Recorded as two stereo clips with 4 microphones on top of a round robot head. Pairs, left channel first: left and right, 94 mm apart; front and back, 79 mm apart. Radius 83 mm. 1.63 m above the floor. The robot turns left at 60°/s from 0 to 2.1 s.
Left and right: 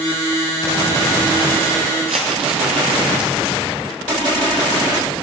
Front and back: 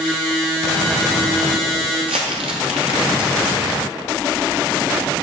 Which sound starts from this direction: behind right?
Crumpling, at 2.0 s.